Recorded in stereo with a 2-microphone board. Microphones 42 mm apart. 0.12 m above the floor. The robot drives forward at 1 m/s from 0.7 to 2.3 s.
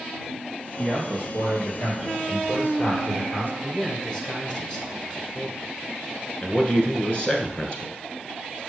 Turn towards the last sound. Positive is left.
turn(degrees=30)  # may be behind; listen again after turning